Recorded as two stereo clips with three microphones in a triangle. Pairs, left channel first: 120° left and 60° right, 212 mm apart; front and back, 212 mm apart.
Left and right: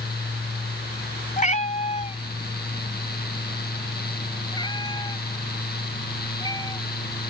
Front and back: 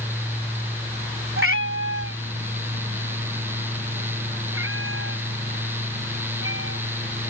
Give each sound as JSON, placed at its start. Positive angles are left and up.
{"t": 1.4, "sound": "a cat meowing", "azimuth_deg": 170}